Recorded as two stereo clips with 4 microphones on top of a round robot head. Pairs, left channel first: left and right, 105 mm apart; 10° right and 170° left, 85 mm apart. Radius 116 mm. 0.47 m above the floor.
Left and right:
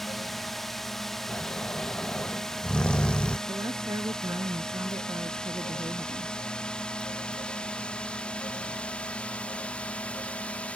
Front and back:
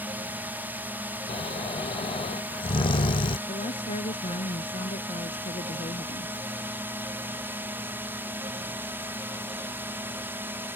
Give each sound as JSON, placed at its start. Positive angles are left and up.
{"t": 0.0, "sound": "a drone", "azimuth_deg": 175}
{"t": 1.3, "sound": "snoring", "azimuth_deg": 10}
{"t": 3.5, "sound": "a woman speaking", "azimuth_deg": -20}